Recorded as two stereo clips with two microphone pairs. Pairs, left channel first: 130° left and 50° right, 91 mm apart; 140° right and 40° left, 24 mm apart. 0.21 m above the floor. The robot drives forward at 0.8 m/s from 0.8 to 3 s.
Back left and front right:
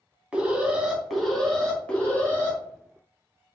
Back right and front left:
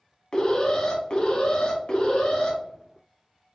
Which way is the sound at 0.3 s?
120° right.